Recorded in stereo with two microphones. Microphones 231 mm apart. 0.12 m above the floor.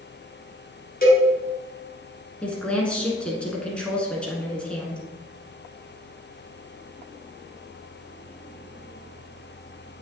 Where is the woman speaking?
5° left (ahead or behind), 1.2 m.